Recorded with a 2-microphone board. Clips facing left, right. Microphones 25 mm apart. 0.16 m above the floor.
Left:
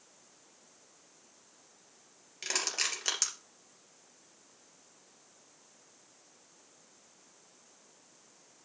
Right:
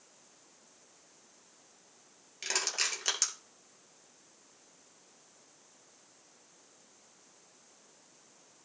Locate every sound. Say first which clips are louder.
2.4 s crushing: even; 5° right (ahead or behind), 3 m